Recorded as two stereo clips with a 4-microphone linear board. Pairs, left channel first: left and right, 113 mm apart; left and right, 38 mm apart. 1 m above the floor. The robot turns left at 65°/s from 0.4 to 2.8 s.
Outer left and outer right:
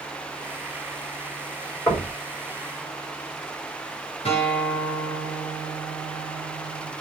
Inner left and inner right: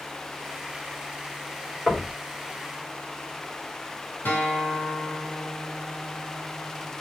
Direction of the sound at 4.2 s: 75° left (ahead or behind).